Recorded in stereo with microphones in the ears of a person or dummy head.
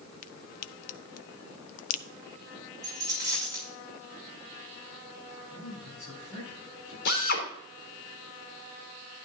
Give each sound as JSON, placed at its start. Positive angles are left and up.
{"t": 0.2, "sound": "a crack", "side_deg": 45, "distance_m": 0.7}
{"t": 2.8, "sound": "a dropped coin", "side_deg": -10, "distance_m": 6.5}
{"t": 5.5, "sound": "a man speaking", "side_deg": 20, "distance_m": 8.0}
{"t": 7.0, "sound": "a drill", "side_deg": 70, "distance_m": 3.5}